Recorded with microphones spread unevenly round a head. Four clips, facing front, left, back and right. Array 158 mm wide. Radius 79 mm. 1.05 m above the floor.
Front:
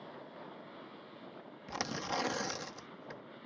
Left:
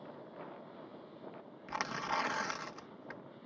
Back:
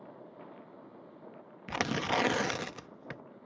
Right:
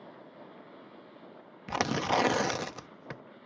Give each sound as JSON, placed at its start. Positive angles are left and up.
{"t": 1.7, "sound": "tearing paper", "azimuth_deg": -115}